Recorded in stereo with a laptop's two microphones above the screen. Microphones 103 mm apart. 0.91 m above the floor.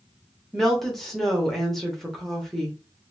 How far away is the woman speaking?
About 0.8 m.